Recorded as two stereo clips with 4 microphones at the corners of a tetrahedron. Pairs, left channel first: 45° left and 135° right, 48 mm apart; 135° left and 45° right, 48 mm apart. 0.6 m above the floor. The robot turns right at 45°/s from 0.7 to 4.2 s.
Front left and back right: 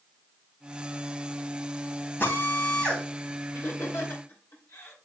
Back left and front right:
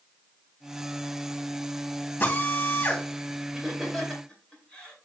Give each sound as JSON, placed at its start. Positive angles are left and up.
{"t": 2.2, "sound": "a drill", "azimuth_deg": 85, "distance_m": 3.0}
{"t": 3.5, "sound": "laughter", "azimuth_deg": 35, "distance_m": 2.5}